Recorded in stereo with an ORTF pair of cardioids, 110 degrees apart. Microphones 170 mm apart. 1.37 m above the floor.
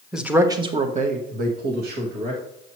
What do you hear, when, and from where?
0.1 s a man speaking: straight ahead, 1.1 m; by 2.4 s 80° right, 2 m